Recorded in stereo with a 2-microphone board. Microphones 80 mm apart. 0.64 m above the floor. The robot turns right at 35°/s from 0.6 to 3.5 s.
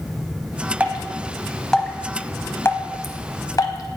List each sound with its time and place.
0.8 s dripping: 20° right (ahead or behind), 0.6 m; by 4.0 s 50° left (ahead or behind), 0.6 m